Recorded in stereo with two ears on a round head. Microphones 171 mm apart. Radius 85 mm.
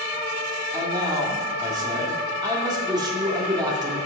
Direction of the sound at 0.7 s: 20° right (ahead or behind).